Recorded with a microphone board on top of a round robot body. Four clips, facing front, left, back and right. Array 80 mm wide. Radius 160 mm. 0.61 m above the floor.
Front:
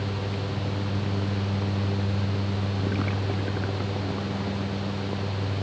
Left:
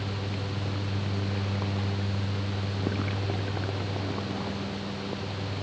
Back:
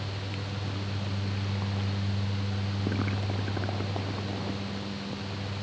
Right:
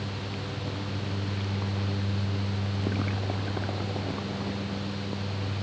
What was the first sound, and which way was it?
Only background noise.